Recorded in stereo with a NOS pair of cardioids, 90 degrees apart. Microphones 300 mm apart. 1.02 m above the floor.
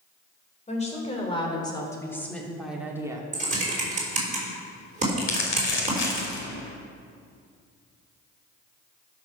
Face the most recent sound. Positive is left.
turn(degrees=40)